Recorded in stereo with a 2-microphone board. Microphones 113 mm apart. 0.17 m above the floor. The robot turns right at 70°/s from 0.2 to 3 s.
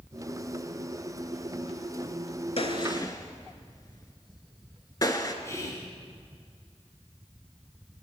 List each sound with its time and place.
2.6 s a gunshot: 60° left (ahead or behind), 0.6 m; by 5.3 s 35° left (ahead or behind), 0.6 m
5.4 s whispering: 25° left (ahead or behind), 1.4 m